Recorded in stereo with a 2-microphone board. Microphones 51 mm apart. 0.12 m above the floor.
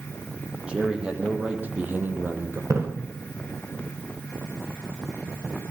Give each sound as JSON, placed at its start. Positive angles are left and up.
{"t": 0.7, "sound": "a man speaking", "side_deg": -20, "distance_m": 5.5}
{"t": 2.7, "sound": "a splash", "side_deg": -85, "distance_m": 8.0}